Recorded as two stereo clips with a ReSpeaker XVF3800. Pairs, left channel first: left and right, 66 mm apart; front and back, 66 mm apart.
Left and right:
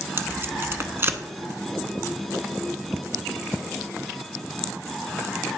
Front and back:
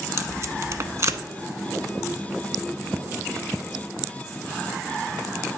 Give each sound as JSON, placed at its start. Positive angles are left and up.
{"t": 0.2, "sound": "tape being pulled", "azimuth_deg": -140, "distance_m": 0.7}